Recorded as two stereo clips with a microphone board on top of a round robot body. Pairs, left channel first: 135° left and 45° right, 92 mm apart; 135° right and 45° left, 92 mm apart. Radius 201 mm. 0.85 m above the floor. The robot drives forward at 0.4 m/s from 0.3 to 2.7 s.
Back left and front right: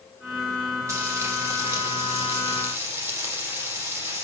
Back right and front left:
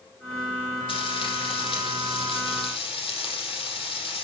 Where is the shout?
I don't hear a shout.